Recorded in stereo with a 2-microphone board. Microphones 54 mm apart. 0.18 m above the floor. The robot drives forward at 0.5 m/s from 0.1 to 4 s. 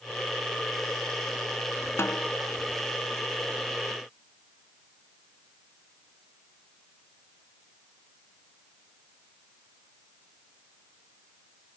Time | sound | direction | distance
2.0 | a snare drum | 55° left (ahead or behind) | 0.6 m